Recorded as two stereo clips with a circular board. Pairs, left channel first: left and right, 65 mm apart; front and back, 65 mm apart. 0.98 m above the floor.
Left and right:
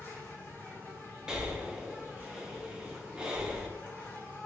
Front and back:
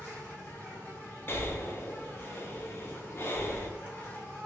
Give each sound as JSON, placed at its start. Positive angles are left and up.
{"t": 0.0, "sound": "an insect", "azimuth_deg": 50, "distance_m": 1.6}
{"t": 1.3, "sound": "breathing", "azimuth_deg": -20, "distance_m": 0.6}